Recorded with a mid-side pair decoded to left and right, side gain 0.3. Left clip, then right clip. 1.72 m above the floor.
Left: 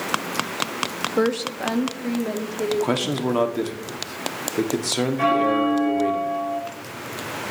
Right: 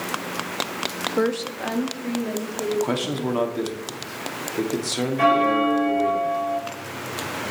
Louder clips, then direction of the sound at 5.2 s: Right 2 dB; 40° right.